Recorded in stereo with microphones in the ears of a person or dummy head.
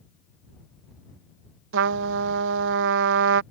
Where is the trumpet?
65° right (ahead or behind).